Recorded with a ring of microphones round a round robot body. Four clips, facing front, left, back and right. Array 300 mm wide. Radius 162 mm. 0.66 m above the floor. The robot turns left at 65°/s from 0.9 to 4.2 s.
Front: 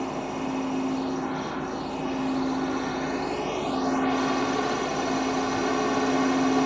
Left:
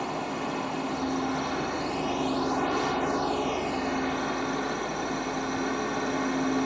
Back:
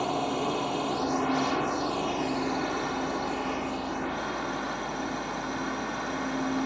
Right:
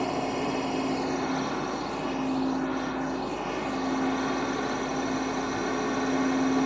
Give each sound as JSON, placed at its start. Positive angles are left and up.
{"t": 0.0, "sound": "a drone", "azimuth_deg": -145}